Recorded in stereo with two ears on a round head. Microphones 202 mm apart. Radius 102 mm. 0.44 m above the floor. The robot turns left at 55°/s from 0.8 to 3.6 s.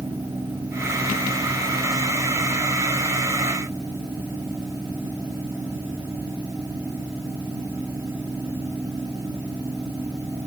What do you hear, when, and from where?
Only background noise.